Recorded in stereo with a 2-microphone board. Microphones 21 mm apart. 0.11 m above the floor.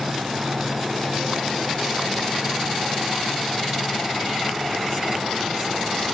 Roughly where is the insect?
Right.